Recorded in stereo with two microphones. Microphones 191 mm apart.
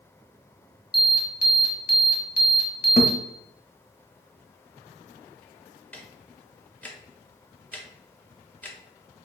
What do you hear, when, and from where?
0.9 s an alarm: 55° left (ahead or behind), 1.4 m
3.0 s a thud: 35° left (ahead or behind), 1.0 m
5.9 s ticking: 10° left (ahead or behind), 0.8 m